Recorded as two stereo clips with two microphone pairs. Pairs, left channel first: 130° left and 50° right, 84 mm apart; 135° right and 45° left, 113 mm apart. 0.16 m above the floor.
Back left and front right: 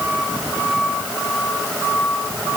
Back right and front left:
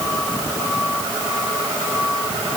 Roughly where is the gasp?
No gasp in this recording.